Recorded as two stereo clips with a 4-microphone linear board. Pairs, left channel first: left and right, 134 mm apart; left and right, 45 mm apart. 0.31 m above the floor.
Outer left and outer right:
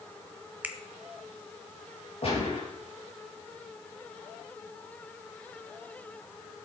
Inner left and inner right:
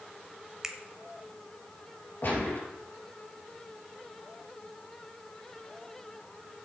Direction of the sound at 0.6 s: 10° right (ahead or behind).